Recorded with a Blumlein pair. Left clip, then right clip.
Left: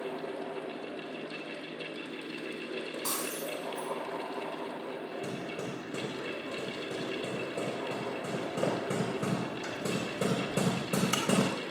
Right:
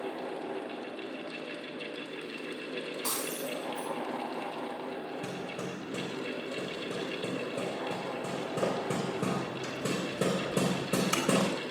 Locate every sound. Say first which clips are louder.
0.0 s a fan: even; 20° right, 2.5 m
3.0 s breaking glass: even; 15° right, 4.5 m
5.2 s hammering: even; 25° right, 3.5 m